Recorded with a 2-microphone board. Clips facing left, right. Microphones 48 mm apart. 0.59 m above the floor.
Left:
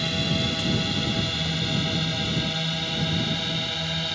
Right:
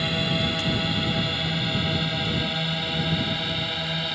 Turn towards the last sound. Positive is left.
turn(degrees=-5)  # may be behind; listen again after turning